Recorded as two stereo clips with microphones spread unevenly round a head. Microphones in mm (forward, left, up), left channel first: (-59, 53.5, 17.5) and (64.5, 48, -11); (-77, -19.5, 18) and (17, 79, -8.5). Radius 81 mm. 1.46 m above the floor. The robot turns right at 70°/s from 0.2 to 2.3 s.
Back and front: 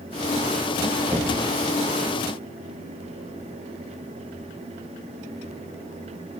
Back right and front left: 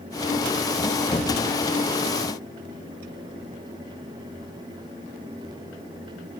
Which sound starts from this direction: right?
Knocking, at 1.1 s.